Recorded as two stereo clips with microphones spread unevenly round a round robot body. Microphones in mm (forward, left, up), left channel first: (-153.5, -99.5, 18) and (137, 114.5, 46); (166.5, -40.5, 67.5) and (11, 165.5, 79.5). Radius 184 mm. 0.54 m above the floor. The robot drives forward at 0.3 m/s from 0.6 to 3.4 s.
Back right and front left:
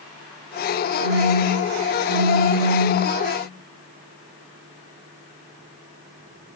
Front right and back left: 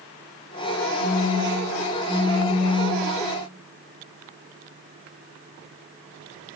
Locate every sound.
1.0 s a phone buzzing: 145° right, 1.2 m; by 3.0 s 155° right, 1.7 m